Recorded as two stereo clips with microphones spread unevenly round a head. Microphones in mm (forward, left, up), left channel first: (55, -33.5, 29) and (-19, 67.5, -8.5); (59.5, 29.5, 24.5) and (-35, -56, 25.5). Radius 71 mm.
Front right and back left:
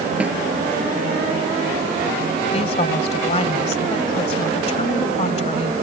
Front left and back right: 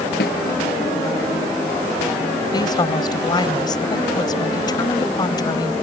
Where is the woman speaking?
15° right.